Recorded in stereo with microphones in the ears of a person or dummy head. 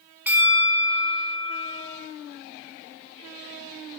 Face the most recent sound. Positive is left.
turn(degrees=-5)  # may be behind; listen again after turning